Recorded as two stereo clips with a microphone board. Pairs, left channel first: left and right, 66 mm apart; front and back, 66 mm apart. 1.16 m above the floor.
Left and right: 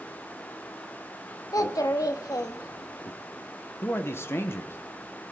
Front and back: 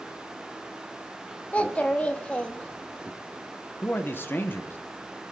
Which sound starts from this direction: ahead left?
A man speaking, at 3.8 s.